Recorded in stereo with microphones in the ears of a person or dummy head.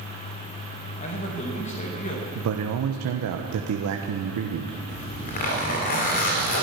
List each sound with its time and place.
1.0 s a man speaking: 35° left (ahead or behind), 1.9 m
2.4 s a man speaking: 70° right (ahead or behind), 1.0 m
4.9 s a zipper: 45° left (ahead or behind), 2.5 m